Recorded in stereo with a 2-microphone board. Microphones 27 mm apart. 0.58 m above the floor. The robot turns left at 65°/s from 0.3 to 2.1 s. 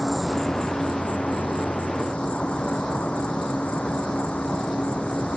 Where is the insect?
165° left; by 5.4 s 45° left.